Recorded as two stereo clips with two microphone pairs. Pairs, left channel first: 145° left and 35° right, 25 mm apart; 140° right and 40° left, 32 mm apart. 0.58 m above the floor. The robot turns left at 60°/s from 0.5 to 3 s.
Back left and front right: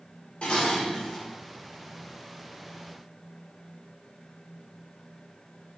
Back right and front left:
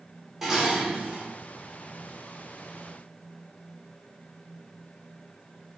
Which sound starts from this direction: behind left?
Dishes clattering, at 0.4 s.